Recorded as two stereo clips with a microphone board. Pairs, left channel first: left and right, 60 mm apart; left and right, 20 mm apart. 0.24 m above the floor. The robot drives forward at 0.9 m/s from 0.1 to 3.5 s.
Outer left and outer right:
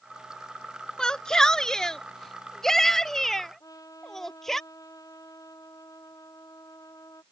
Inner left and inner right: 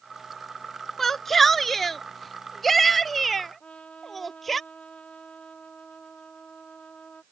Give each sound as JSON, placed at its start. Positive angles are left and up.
{"t": 1.0, "sound": "a shout", "side_deg": 15}
{"t": 3.6, "sound": "a trumpet", "side_deg": 80}